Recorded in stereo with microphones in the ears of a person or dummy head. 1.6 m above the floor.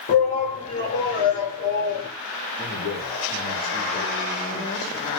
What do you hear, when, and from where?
0.1 s a shout: 30° left (ahead or behind), 3 m
2.6 s a man speaking: 25° left (ahead or behind), 3.5 m